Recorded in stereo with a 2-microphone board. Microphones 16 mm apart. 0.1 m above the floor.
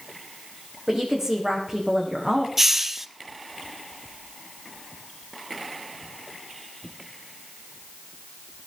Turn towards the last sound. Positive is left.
turn(degrees=-15)  # may be behind; listen again after turning